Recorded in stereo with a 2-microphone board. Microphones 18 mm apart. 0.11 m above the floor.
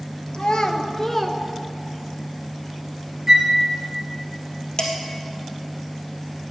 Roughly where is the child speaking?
Left.